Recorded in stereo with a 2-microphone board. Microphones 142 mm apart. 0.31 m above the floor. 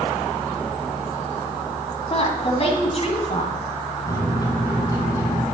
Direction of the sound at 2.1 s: 45° left (ahead or behind).